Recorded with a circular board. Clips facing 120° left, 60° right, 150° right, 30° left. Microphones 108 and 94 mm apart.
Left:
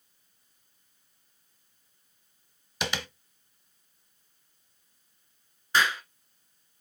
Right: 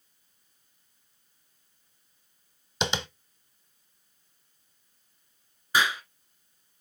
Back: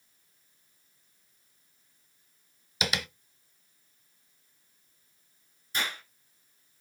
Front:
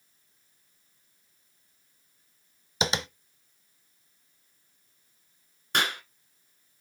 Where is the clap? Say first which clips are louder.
Even, front 6 dB; 20° left, 2 m.